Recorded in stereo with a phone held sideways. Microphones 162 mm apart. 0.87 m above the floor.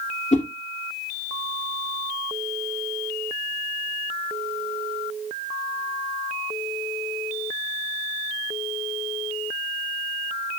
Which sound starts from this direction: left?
A whoosh, at 0.3 s.